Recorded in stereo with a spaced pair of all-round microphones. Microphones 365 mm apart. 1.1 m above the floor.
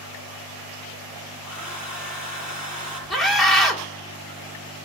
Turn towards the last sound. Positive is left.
turn(degrees=0)  # may be behind; listen again after turning